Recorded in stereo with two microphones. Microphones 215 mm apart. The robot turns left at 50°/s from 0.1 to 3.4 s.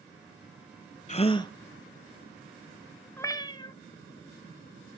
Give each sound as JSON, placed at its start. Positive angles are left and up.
{"t": 1.1, "sound": "a gasp", "side_deg": 35, "distance_m": 0.6}
{"t": 3.2, "sound": "a cat meowing", "side_deg": 10, "distance_m": 0.6}